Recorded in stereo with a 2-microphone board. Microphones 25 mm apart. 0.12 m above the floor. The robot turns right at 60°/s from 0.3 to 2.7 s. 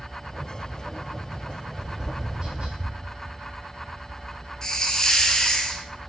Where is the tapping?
5° right (ahead or behind), 1.3 m; by 2.9 s 55° right (ahead or behind), 1.3 m.